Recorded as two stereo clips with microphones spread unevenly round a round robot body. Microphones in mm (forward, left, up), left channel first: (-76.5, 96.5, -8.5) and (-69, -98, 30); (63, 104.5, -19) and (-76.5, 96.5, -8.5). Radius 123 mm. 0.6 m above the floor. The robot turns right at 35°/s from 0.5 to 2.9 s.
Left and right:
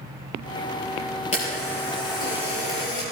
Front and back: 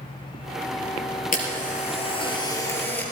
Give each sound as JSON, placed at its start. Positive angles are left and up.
{"t": 1.3, "sound": "a camera shutter", "azimuth_deg": 25, "distance_m": 4.5}